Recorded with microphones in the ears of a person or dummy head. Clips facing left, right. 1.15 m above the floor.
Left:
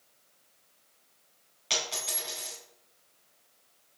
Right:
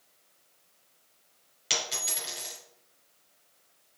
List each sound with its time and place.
1.7 s a dropped coin: 20° right (ahead or behind), 1.6 m